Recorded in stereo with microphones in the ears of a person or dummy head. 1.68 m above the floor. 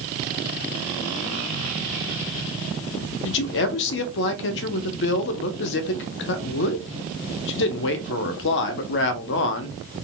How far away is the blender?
I don't hear a blender.